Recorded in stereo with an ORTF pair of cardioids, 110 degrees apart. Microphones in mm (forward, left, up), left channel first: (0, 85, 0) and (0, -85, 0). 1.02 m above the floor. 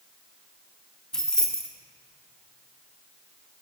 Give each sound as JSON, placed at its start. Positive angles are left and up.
{"t": 1.1, "sound": "keys jangling", "azimuth_deg": 5, "distance_m": 0.9}